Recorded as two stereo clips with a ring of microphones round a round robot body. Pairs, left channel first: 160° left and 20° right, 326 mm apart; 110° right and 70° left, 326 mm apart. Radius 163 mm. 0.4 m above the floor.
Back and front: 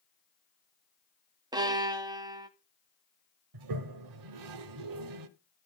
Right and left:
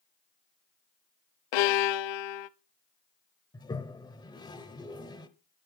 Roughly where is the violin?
Right.